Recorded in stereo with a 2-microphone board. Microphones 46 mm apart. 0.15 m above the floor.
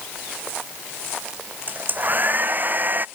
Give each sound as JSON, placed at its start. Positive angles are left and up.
{"t": 1.7, "sound": "a hair dryer", "side_deg": -40}